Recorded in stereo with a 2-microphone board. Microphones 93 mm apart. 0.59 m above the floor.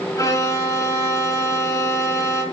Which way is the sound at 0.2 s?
35° left (ahead or behind).